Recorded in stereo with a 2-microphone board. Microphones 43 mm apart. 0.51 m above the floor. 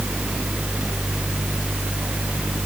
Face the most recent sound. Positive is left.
No sound to turn to.